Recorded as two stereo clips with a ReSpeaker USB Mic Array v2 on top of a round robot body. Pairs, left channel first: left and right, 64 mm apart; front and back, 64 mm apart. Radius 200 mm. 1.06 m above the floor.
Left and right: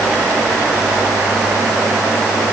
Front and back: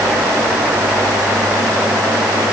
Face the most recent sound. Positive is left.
No sound to turn to.